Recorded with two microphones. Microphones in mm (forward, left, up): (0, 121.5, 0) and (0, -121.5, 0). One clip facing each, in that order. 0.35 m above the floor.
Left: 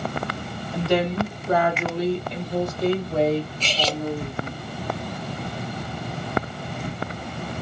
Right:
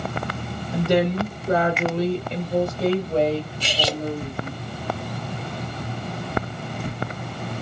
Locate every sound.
0.7 s a woman speaking: 15° right (ahead or behind), 1.4 m; by 4.6 s 35° right (ahead or behind), 2.5 m
3.6 s cutlery clinking: 10° right (ahead or behind), 0.6 m